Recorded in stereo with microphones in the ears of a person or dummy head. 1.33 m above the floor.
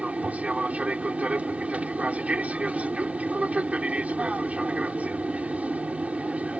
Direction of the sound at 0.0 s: 5° right (ahead or behind).